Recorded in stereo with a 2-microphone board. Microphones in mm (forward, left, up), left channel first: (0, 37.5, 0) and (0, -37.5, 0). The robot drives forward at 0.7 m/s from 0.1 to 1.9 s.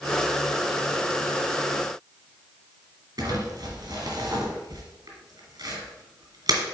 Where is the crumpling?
55° right (ahead or behind), 2.5 m.